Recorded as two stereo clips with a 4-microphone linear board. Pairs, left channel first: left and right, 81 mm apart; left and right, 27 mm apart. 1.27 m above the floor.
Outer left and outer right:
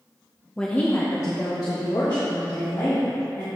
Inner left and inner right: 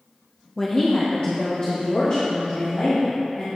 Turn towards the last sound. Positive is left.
turn(degrees=65)  # may be behind; listen again after turning